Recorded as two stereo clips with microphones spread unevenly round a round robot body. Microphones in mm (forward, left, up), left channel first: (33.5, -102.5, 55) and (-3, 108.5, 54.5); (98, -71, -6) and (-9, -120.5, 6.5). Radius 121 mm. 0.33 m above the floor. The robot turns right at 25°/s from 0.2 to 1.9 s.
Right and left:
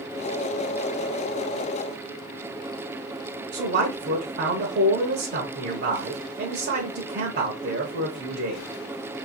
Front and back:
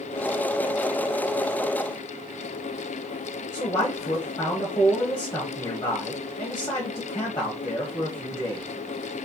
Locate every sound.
3.5 s a man speaking: 85° left, 1.2 m